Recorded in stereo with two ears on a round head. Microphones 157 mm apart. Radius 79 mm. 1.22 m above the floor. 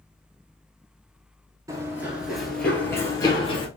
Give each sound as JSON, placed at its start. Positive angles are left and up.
{"t": 1.7, "sound": "running footsteps", "side_deg": -20, "distance_m": 1.2}